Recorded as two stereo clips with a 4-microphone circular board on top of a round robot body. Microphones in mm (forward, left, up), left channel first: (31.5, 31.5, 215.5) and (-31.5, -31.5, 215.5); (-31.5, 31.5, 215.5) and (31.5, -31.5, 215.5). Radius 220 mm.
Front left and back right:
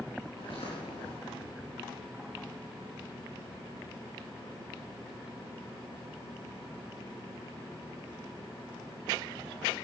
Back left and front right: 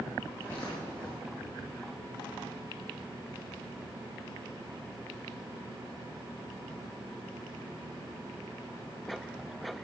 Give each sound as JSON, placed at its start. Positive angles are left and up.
{"t": 0.4, "sound": "footsteps", "azimuth_deg": 75, "distance_m": 6.5}